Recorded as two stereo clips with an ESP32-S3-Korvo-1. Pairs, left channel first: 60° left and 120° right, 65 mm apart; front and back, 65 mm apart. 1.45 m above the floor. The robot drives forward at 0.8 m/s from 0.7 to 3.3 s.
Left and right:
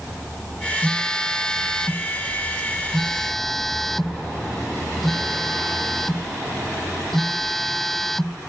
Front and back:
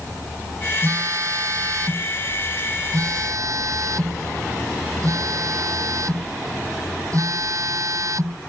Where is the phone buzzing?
140° left; by 8.4 s 145° left.